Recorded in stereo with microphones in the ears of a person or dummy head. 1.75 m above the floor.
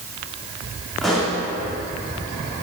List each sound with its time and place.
1.0 s a pop: centre (ahead or behind), 2.5 m